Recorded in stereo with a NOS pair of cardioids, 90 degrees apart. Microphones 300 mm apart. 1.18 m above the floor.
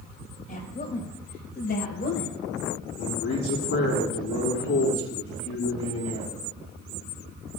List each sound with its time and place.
0.5 s a woman speaking: 30° left, 5.5 m; by 2.4 s 35° left, 4.5 m
3.0 s a man speaking: 50° left, 7 m